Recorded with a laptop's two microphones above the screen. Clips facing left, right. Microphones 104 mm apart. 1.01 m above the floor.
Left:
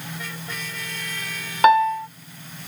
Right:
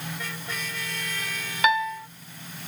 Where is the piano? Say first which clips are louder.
Left 9 dB; 45° left (ahead or behind).